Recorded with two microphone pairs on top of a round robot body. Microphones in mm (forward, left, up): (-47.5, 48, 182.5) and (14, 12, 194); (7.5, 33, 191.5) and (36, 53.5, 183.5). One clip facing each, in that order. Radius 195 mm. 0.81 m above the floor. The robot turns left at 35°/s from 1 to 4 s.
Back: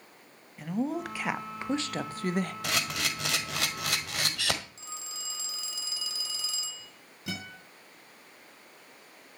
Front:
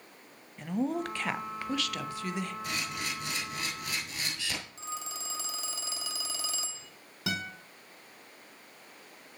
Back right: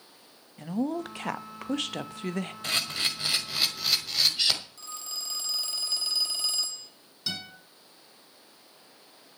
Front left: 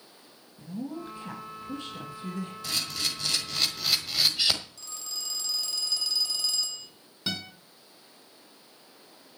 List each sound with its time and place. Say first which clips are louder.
0.6 s a woman speaking: even, back right 7 dB; 125° right, 1.2 m; by 2.5 s straight behind, 1.2 m
2.6 s a camera shutter: back 3 dB, back right 2 dB; 170° left, 1.7 m; by 4.6 s 125° left, 1.7 m
4.8 s a phone ringing: front 5 dB, even; 80° right, 1.6 m
7.3 s a guitar: front 5 dB, front left 2 dB; 30° right, 5 m